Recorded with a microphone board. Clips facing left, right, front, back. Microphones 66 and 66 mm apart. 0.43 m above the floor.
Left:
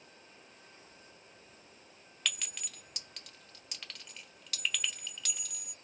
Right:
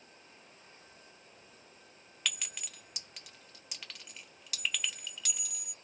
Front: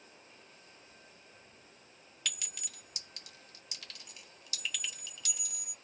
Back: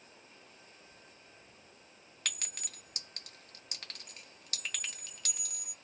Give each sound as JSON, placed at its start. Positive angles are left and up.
{"t": 2.2, "sound": "a clink", "azimuth_deg": 180, "distance_m": 1.0}